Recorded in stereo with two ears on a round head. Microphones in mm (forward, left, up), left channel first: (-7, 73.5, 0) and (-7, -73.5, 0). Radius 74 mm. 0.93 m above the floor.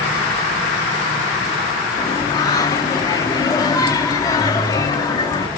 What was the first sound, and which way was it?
Singing, 20° left (ahead or behind).